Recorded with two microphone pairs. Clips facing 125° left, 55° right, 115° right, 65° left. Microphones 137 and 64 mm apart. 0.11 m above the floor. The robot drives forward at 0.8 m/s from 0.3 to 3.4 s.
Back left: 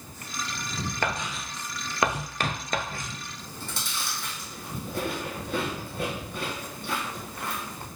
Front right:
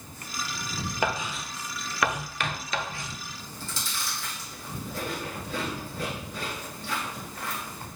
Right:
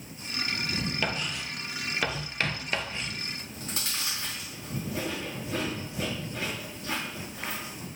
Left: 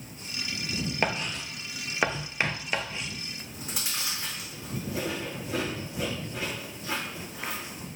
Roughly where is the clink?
I don't hear a clink.